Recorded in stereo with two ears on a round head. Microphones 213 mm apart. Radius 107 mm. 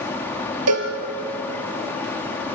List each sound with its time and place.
0.7 s a cowbell: 80° right, 3 m